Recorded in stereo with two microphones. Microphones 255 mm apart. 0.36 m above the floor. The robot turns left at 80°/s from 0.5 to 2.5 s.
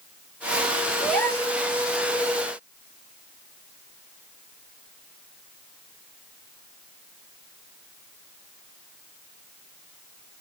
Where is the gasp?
170° right, 1.5 m; by 1.5 s 145° left, 1.5 m.